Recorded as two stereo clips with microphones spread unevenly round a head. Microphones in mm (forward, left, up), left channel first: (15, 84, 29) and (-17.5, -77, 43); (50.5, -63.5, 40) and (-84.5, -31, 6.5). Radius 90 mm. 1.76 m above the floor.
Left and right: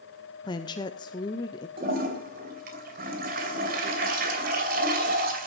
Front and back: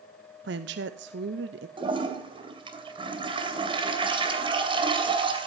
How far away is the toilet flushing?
About 2.5 m.